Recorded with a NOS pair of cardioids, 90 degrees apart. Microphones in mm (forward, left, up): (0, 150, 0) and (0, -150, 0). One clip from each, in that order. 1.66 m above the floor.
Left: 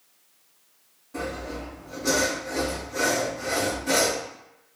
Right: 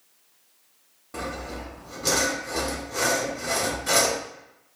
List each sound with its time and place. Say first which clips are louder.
1.1 s sawing: left 1 dB; 60° right, 1.3 m